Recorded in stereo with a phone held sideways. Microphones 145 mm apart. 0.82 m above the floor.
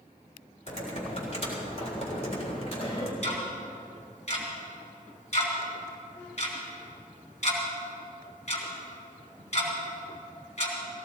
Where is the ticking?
55° left (ahead or behind), 3.5 m.